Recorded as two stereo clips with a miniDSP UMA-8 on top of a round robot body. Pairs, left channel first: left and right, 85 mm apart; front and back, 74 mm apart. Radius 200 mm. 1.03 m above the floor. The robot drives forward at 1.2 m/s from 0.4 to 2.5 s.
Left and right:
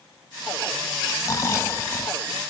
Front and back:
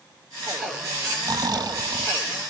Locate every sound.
1.2 s snoring: 140° left; by 2.2 s 160° left